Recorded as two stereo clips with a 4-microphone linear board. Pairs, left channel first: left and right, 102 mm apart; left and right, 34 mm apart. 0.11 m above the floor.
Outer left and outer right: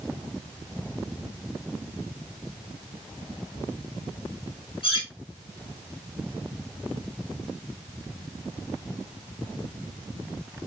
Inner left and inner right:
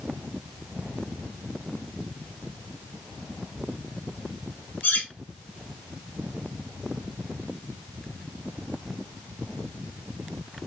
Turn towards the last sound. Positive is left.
turn(degrees=55)  # may be behind; listen again after turning